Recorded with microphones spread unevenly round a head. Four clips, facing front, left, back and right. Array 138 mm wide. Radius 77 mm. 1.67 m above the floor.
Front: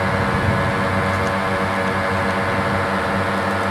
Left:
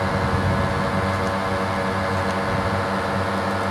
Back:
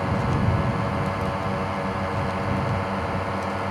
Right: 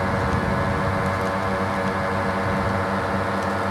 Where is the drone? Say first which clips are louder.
Even, front 5 dB; straight ahead.